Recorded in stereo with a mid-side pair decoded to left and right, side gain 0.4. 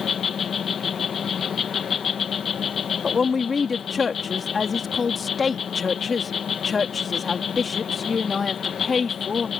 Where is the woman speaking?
40° left.